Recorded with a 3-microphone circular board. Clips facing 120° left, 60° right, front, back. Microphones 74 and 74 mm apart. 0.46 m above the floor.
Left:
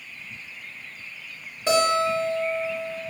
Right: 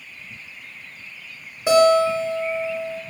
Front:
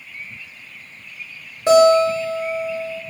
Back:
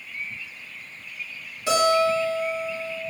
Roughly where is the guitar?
Ahead.